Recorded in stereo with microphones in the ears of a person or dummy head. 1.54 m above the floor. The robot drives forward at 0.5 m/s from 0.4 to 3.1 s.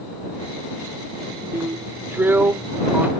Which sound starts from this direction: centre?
A drill, at 1.5 s.